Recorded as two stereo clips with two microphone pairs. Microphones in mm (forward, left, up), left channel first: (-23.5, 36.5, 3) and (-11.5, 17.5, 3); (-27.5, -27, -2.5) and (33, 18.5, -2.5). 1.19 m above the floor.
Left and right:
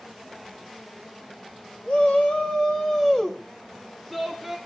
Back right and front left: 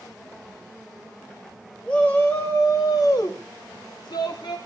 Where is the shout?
145° left, 1.8 m; by 4.6 s 145° right, 2.5 m.